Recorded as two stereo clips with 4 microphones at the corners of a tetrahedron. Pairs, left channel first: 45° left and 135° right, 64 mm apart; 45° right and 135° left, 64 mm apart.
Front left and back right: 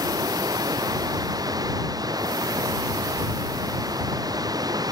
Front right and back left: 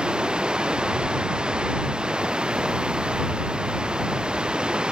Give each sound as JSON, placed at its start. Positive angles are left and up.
{"t": 0.0, "sound": "running water", "azimuth_deg": -150}